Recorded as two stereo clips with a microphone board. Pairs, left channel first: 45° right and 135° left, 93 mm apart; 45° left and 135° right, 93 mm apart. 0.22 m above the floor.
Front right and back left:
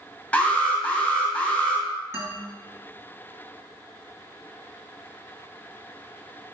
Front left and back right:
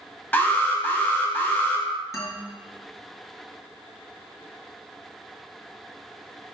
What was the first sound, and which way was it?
An alarm, 10° left.